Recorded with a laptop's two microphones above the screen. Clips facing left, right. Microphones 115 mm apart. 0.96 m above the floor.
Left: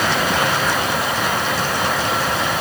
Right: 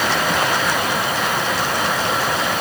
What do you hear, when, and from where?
Only background noise.